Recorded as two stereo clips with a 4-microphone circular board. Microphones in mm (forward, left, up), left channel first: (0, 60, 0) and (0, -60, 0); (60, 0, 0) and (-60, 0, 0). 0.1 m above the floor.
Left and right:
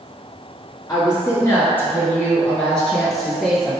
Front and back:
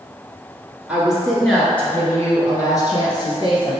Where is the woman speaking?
110° left, 1.3 m; by 3.8 s 5° right, 1.7 m.